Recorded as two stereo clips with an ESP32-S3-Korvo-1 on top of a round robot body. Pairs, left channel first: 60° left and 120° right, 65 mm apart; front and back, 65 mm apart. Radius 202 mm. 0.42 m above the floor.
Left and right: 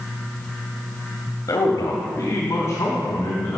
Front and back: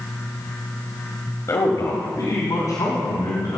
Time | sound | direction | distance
1.5 | a man speaking | 30° left | 1.6 m